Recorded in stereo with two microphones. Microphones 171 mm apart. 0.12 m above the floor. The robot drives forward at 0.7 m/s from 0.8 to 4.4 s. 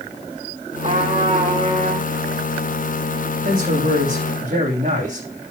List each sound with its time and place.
0.8 s a trumpet: 40° right (ahead or behind), 7 m; by 2.1 s 45° right (ahead or behind), 6.5 m
3.5 s a man speaking: 60° right (ahead or behind), 5.5 m